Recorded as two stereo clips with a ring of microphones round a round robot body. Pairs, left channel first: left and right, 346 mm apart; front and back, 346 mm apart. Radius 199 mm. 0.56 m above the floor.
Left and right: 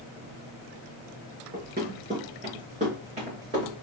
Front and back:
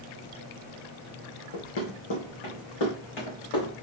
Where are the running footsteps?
20° right, 2.5 m; by 3.7 s 15° right, 4 m.